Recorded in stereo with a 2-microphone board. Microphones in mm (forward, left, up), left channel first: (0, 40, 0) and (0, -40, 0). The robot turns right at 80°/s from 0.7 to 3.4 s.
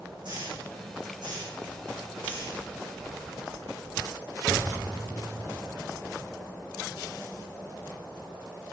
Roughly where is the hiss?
Right.